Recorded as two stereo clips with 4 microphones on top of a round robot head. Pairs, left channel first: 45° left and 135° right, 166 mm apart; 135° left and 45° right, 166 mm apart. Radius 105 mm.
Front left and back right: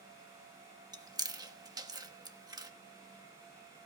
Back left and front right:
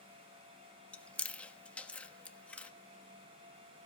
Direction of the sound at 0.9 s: 150° right.